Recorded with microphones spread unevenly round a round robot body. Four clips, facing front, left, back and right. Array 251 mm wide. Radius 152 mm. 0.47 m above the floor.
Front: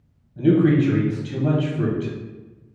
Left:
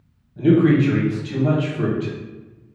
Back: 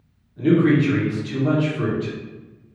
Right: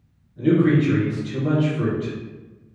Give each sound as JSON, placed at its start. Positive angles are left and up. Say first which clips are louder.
{"t": 0.4, "sound": "a man speaking", "louder": "left 2 dB, even", "azimuth_deg": 50, "distance_m": 1.2}